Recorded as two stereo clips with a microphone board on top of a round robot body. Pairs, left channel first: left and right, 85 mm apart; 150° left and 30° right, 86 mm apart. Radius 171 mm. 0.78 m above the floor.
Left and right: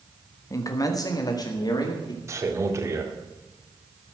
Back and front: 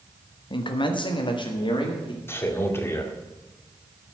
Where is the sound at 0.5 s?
140° left, 1.3 m; by 2.2 s 130° left, 2.5 m.